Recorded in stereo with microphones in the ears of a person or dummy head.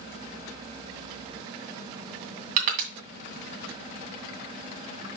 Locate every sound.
2.6 s crushing: 45° right (ahead or behind), 2 m